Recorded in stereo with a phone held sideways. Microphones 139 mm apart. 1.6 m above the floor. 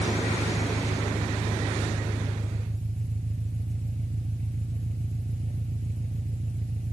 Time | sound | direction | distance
0.0 | an engine running | 60° right (ahead or behind) | ?